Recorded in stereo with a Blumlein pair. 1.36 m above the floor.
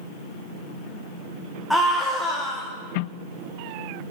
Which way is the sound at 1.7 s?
Straight ahead.